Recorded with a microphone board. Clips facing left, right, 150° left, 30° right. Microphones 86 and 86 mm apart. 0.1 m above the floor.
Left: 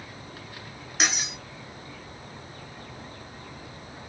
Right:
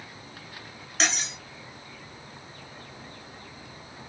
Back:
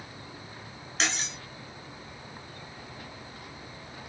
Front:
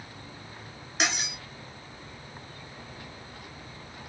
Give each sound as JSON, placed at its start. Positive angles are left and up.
{"t": 1.0, "sound": "cutlery clinking", "azimuth_deg": 25, "distance_m": 0.6}